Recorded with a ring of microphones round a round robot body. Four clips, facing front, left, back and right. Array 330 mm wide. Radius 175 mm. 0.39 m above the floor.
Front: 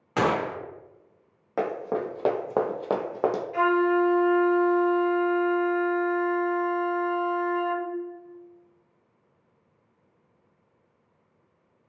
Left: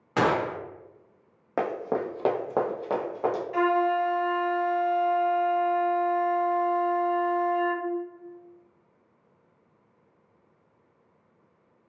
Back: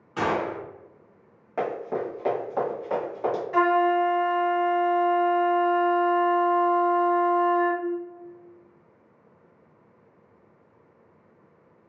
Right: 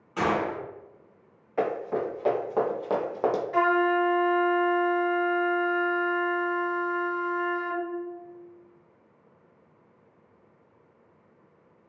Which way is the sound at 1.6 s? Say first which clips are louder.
Even, even; 70° left.